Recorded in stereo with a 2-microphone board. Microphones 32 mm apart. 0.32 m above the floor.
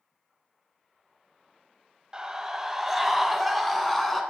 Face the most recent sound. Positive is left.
turn(degrees=10)  # may be behind; listen again after turning